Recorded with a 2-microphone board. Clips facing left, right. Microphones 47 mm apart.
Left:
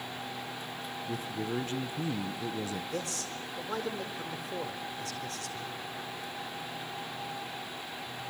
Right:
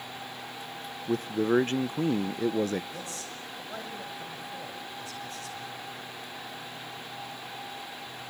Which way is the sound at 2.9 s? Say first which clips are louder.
Left 3 dB; 80° left.